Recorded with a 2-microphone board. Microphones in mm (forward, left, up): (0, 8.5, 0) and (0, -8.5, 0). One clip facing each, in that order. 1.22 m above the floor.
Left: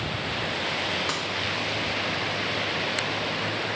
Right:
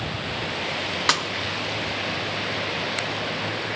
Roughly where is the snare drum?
Right.